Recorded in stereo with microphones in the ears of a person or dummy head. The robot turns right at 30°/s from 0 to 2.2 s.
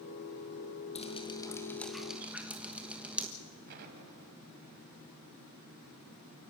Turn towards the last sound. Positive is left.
turn(degrees=-50)  # may be behind; listen again after turning